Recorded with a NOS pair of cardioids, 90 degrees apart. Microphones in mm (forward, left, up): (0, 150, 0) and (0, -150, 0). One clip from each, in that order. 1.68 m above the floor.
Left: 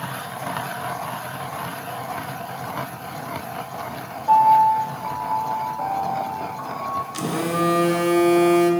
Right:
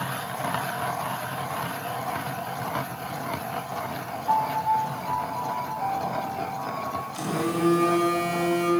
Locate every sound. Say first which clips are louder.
4.3 s a piano: left 9 dB; 45° left, 2.5 m
7.1 s a phone buzzing: left 2 dB; 45° left, 1.2 m